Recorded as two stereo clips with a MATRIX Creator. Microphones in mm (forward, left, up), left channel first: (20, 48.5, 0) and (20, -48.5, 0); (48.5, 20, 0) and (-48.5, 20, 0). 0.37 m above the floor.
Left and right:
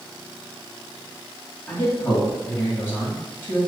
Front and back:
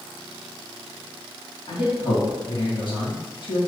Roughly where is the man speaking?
Ahead left.